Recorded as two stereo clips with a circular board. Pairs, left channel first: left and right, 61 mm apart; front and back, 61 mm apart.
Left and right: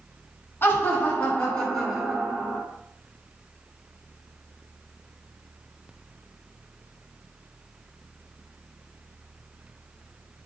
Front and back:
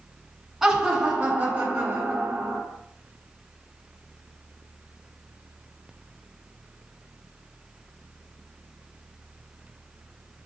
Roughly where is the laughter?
Left.